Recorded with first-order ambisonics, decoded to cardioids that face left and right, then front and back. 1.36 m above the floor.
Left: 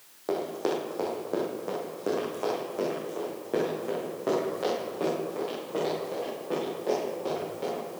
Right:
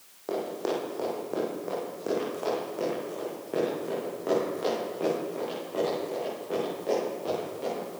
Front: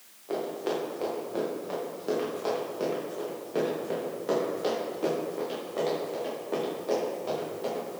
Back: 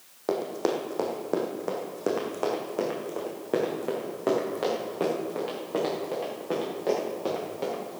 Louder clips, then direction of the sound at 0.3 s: Left 1 dB, back 3 dB; 170° left.